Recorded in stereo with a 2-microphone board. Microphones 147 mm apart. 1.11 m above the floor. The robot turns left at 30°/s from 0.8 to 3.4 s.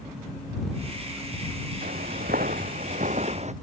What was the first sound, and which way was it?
Footsteps, 75° right (ahead or behind).